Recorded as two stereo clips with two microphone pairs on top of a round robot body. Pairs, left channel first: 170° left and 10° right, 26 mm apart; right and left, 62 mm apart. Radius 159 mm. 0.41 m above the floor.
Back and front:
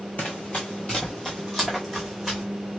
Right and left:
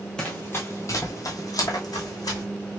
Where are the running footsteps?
175° right, 0.7 m; by 2.4 s 110° right, 1.9 m.